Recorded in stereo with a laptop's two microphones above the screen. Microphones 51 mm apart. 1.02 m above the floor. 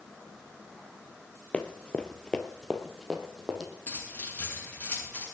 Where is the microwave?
I don't hear a microwave.